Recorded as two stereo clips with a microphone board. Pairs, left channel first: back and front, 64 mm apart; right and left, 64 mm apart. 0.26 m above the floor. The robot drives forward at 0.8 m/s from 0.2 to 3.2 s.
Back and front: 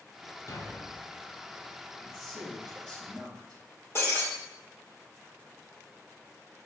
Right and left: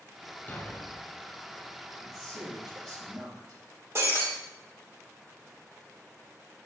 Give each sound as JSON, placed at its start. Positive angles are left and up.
{"t": 0.5, "sound": "a thud", "azimuth_deg": -150, "distance_m": 1.1}
{"t": 2.0, "sound": "a man speaking", "azimuth_deg": 100, "distance_m": 3.5}
{"t": 4.0, "sound": "breaking glass", "azimuth_deg": 130, "distance_m": 3.5}